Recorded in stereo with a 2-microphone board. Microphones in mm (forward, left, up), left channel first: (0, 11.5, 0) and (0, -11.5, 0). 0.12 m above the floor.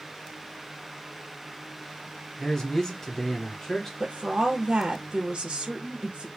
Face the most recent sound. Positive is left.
turn(degrees=-35)  # may be behind; listen again after turning